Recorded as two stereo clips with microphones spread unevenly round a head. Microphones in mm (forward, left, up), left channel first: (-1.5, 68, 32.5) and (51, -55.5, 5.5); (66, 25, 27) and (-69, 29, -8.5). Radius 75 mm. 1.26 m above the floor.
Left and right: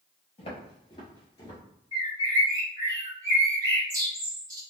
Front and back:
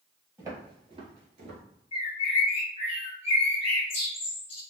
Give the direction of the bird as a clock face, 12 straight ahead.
12 o'clock.